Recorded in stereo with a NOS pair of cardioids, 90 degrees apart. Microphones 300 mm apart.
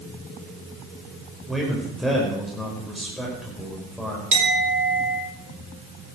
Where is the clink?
45° right, 4 m.